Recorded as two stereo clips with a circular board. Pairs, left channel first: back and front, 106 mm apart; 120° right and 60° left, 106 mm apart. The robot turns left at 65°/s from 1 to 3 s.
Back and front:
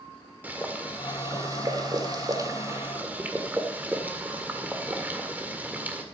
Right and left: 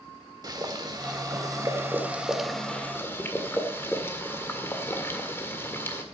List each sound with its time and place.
0.4 s boiling: 65° left, 1.7 m; by 6.0 s 65° right, 1.7 m